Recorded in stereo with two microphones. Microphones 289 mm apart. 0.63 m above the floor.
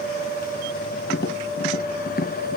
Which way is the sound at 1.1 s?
35° left (ahead or behind).